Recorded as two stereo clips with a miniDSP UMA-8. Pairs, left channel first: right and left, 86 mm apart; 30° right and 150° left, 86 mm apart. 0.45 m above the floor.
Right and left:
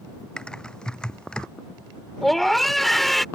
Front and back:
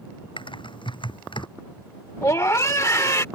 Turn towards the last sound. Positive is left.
turn(degrees=-5)